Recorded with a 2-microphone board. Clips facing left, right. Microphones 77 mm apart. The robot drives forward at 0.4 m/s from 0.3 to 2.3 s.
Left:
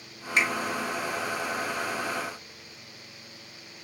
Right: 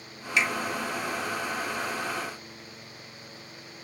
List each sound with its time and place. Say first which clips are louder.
0.4 s a finger snap: even; 40° left (ahead or behind), 0.8 m